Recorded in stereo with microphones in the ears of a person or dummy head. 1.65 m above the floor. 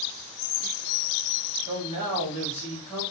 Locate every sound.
1.7 s a man speaking: 45° right (ahead or behind), 1.3 m